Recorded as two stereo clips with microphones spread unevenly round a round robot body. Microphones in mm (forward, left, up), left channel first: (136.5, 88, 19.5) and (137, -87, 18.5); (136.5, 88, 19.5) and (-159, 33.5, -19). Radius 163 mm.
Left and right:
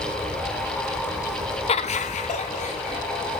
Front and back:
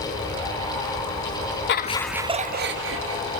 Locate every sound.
1.7 s laughter: 55° left, 0.5 m; by 3.2 s 155° left, 1.2 m